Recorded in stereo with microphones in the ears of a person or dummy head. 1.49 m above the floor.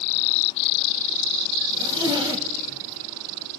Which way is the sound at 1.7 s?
15° right (ahead or behind).